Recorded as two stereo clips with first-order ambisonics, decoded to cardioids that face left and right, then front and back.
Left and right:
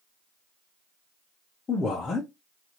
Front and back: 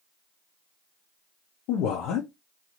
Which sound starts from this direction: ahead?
A man speaking, at 1.7 s.